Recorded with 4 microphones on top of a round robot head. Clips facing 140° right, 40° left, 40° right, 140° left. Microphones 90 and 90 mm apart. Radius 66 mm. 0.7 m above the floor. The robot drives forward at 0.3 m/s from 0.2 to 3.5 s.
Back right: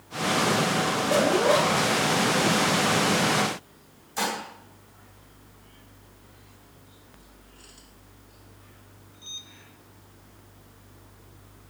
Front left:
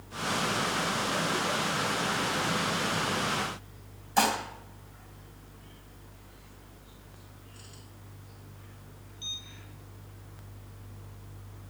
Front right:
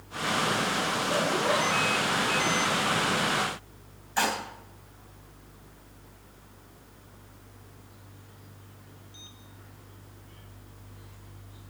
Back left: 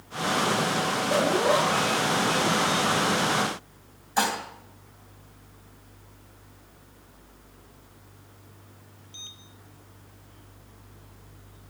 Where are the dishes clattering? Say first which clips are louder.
Front left 4 dB, back left 2 dB; 70° left, 3 m.